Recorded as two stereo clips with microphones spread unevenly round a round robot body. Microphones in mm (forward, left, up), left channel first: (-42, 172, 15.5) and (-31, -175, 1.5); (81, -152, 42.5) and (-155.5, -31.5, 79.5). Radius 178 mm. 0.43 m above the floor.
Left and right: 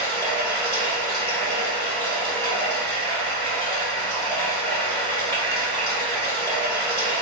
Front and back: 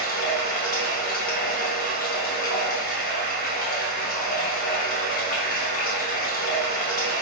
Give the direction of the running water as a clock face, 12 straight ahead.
12 o'clock.